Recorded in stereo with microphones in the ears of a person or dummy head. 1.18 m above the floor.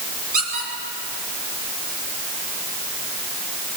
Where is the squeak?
55° right (ahead or behind), 7.5 m.